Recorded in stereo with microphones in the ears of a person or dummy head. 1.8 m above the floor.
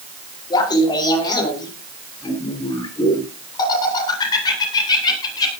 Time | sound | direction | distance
0.5 | laughter | 25° left (ahead or behind) | 5.5 m